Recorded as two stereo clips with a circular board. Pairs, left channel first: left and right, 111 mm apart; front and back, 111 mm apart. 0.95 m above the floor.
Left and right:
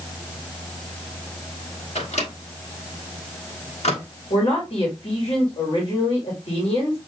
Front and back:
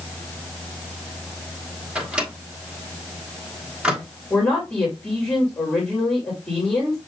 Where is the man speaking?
70° left, 2.0 m.